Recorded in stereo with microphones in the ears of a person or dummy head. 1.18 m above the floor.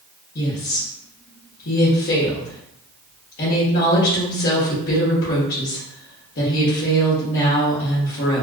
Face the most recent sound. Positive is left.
turn(degrees=50)  # may be behind; listen again after turning